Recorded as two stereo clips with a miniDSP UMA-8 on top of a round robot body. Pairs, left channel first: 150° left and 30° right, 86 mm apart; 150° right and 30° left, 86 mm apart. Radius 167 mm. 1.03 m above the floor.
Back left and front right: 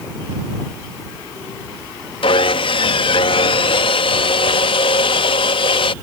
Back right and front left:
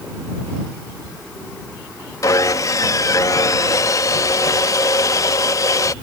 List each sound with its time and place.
2.2 s sawing: 160° left